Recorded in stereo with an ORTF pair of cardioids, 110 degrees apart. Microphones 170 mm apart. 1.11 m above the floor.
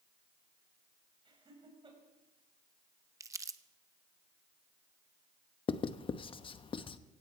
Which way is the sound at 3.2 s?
20° right.